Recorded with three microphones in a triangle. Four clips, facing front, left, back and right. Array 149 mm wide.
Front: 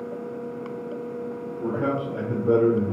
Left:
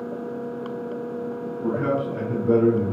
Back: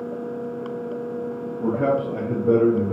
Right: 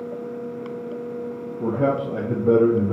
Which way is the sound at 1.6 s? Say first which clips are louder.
Right 2 dB, back 5 dB; 120° right.